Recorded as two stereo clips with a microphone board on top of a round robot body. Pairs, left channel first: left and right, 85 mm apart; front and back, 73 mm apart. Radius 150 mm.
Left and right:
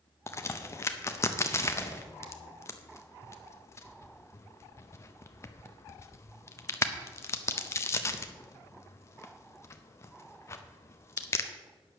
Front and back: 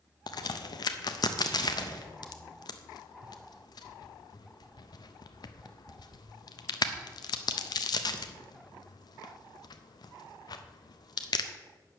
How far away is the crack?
About 0.6 m.